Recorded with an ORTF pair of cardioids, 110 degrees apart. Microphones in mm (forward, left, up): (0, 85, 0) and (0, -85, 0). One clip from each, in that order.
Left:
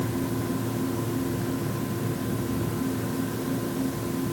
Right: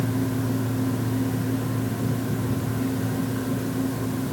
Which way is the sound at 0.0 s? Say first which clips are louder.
Right 2 dB; 20° right.